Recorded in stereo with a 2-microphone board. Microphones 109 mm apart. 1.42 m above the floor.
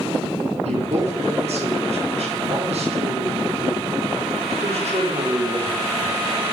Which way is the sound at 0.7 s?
75° right (ahead or behind).